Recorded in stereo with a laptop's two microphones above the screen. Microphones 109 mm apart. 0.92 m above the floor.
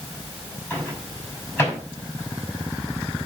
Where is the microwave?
20° left (ahead or behind), 4.5 m.